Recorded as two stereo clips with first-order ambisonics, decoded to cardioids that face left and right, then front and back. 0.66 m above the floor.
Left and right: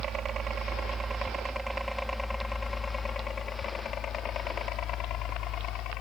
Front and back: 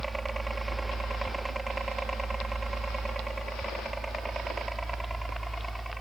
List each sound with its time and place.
0.0 s a helicopter: 110° right; by 6.0 s 95° left